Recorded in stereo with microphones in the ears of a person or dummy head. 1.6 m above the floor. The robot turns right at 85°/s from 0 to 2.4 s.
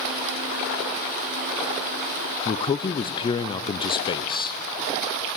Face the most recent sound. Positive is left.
turn(degrees=30)  # may be behind; listen again after turning